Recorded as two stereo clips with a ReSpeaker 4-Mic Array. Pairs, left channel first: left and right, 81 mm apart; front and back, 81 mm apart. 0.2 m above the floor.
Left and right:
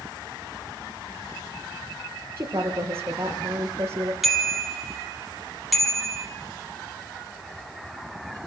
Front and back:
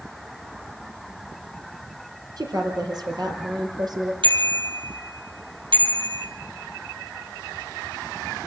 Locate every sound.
2.4 s a woman speaking: 150° right, 4.5 m
4.2 s a bicycle bell: straight behind, 4 m